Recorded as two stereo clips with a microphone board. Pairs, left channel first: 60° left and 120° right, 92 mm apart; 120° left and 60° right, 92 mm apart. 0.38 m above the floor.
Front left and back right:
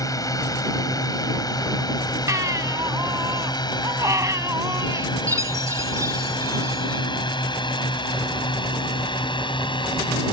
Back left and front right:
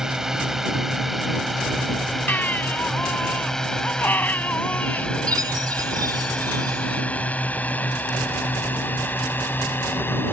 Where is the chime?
80° right.